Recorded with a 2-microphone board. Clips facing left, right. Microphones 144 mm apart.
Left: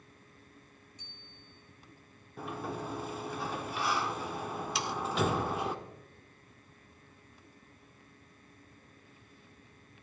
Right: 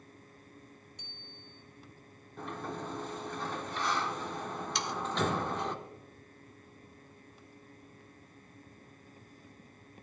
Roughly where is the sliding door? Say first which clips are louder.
Left 1 dB; centre.